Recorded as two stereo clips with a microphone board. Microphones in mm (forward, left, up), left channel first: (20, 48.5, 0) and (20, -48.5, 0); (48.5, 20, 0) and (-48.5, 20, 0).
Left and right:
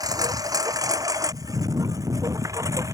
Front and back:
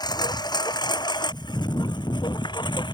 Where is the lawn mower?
40° right; by 3.0 s 35° right.